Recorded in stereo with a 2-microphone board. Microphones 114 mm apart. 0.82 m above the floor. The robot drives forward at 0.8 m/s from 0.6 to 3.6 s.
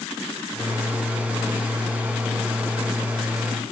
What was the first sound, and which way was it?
Only background noise.